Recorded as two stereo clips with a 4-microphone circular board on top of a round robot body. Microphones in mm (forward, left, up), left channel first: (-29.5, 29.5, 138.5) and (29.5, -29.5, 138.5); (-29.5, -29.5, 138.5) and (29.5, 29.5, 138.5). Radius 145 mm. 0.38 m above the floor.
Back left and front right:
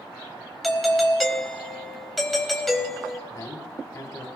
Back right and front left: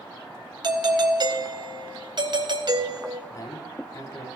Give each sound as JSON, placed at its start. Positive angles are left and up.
{"t": 0.6, "sound": "a doorbell", "azimuth_deg": 45, "distance_m": 3.0}
{"t": 3.3, "sound": "a man speaking", "azimuth_deg": 180, "distance_m": 3.0}